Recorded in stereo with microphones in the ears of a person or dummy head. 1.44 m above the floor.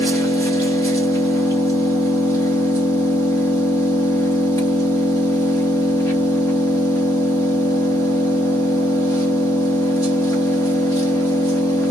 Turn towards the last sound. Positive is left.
turn(degrees=20)  # may be behind; listen again after turning